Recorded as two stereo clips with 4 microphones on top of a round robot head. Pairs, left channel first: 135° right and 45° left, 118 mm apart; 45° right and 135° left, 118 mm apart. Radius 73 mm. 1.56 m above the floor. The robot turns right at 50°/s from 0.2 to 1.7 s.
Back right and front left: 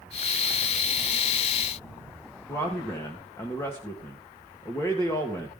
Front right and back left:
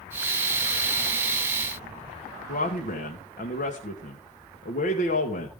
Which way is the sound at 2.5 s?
60° right.